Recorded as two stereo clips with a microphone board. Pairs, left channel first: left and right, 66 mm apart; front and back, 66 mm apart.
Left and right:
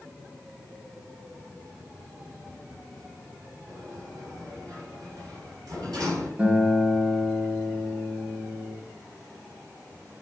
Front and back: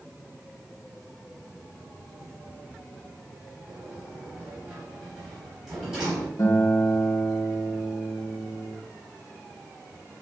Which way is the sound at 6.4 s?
20° right.